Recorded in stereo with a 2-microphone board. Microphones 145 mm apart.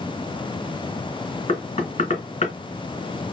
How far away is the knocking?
About 2 m.